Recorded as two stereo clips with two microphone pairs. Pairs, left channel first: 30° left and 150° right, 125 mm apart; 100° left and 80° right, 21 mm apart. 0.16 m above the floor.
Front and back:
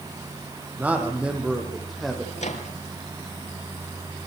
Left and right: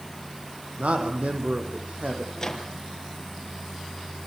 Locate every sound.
0.8 s a man speaking: 70° right, 7.5 m; by 2.3 s 60° right, 8.5 m
2.4 s a microwave: 35° left, 4 m